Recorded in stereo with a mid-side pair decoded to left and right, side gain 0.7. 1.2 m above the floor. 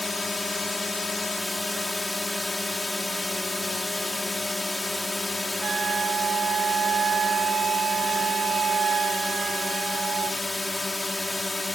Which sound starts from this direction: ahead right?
A flute, at 5.6 s.